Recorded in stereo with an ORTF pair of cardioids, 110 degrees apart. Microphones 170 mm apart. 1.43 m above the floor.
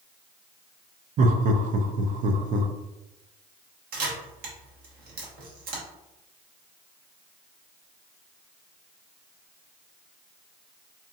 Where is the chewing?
I don't hear chewing.